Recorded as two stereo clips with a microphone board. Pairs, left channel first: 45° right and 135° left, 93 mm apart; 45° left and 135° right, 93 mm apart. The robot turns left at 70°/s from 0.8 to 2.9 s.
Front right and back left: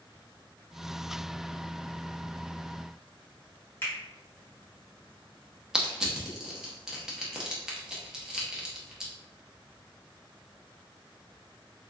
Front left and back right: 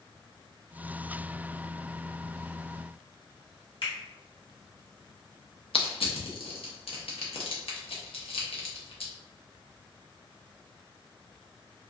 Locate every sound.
3.8 s a finger snap: 20° left, 1.4 m
5.7 s crushing: 50° left, 0.7 m